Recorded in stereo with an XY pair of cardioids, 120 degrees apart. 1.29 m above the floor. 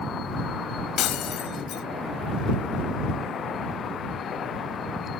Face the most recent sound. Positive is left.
turn(degrees=65)